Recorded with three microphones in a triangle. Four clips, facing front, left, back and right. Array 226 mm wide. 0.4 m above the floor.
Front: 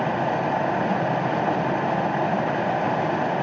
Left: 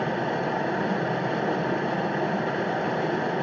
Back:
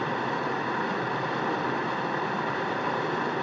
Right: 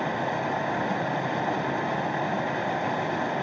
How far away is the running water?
About 2.5 m.